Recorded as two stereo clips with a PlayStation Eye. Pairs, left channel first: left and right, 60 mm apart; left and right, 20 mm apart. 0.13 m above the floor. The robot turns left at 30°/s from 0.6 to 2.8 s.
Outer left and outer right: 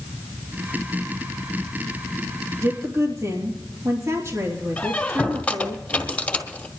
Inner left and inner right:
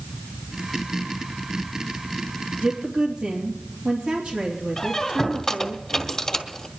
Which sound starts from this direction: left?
A squeak, at 4.8 s.